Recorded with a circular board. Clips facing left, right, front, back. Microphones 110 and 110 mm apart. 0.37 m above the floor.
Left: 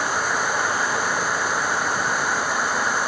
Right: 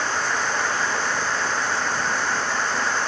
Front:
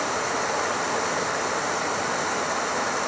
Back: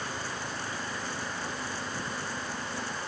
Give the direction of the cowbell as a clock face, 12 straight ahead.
No cowbell in this recording.